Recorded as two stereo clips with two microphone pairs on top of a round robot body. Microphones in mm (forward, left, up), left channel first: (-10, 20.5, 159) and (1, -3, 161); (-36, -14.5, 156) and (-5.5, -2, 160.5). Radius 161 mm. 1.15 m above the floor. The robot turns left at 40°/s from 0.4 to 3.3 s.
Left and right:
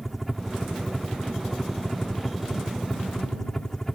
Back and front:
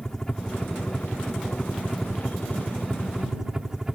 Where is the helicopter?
155° right; by 4.0 s 85° left.